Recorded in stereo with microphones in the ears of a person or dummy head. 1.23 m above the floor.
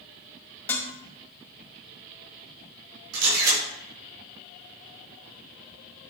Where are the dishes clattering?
10° left (ahead or behind), 1.9 m.